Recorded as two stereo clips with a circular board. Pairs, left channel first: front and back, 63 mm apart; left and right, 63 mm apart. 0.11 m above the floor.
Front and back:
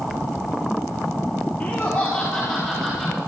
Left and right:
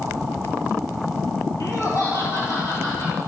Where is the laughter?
60° left, 3 m; by 3.2 s 100° left, 3 m.